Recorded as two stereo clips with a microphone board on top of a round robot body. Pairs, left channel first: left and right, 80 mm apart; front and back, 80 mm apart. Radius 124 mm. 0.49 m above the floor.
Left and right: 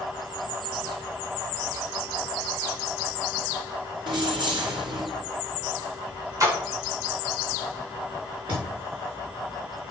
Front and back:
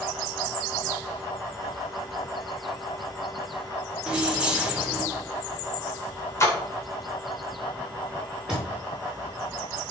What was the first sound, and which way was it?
Keys jangling, 105° right.